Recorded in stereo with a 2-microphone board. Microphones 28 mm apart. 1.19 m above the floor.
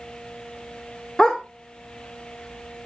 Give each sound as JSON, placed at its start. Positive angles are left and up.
{"t": 1.2, "sound": "a dog barking", "side_deg": 20, "distance_m": 1.5}